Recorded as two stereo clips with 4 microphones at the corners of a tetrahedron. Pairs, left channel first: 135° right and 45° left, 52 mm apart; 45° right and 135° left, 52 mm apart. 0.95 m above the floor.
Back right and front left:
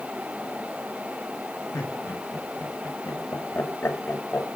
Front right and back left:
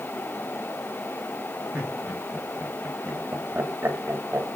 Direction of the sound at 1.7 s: 160° right.